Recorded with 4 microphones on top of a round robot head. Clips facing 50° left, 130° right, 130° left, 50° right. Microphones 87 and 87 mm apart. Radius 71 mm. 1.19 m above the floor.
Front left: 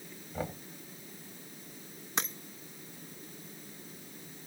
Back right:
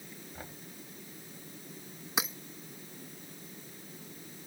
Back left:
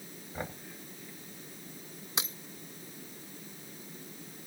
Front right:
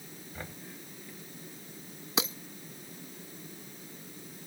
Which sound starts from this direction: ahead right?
Breaking glass, at 2.2 s.